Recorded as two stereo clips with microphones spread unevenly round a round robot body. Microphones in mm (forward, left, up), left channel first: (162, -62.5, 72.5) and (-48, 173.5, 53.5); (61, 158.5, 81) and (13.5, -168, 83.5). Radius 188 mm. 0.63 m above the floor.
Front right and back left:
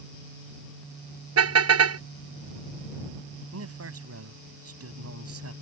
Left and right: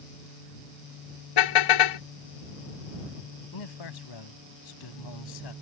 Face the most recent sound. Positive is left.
turn(degrees=90)